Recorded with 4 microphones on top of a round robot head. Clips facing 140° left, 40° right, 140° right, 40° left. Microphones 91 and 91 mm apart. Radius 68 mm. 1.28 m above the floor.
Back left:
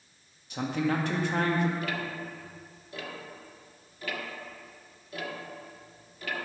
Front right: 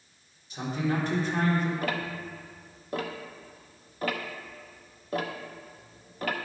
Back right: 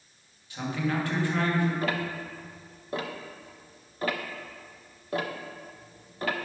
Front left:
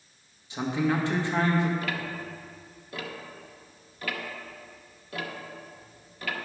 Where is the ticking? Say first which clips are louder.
Front right 2 dB, back right 3 dB; 85° right, 0.6 m.